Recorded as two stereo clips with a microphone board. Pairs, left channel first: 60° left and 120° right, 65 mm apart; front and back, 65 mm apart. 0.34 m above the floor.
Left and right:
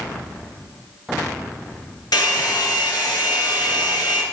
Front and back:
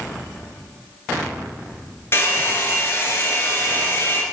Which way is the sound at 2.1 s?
55° left.